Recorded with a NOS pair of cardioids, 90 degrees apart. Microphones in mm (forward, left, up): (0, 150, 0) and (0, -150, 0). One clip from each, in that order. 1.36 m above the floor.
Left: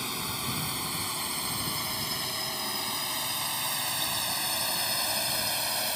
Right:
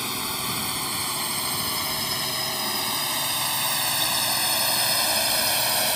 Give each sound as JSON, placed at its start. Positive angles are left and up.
{"t": 0.0, "sound": "a drone", "azimuth_deg": -30}